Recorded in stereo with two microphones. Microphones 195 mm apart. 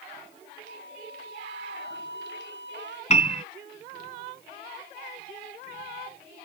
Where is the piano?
35° left (ahead or behind).